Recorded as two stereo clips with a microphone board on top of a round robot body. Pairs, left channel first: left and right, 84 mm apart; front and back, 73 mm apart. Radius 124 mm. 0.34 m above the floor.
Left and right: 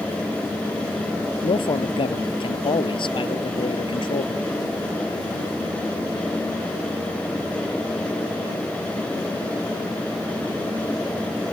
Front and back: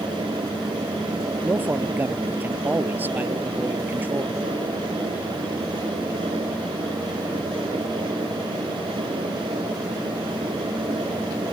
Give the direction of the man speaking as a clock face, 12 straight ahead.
8 o'clock.